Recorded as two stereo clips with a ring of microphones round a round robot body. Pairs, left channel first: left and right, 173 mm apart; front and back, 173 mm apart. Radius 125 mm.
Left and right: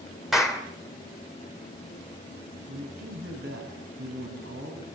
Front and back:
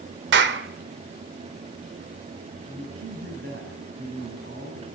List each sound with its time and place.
0.3 s a clap: straight behind, 2.5 m
2.7 s a man speaking: 130° right, 6 m